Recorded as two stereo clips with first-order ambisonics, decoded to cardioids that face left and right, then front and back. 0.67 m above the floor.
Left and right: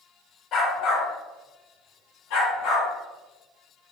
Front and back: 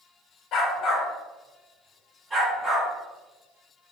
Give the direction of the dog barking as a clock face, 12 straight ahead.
11 o'clock.